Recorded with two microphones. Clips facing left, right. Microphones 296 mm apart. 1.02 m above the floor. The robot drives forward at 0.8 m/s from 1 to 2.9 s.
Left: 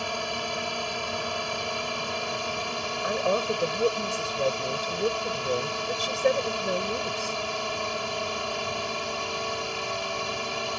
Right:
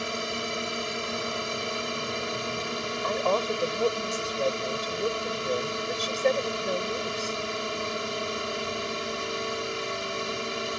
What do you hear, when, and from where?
0.0 s a drone: 20° right (ahead or behind)
3.0 s a woman speaking: 10° left (ahead or behind)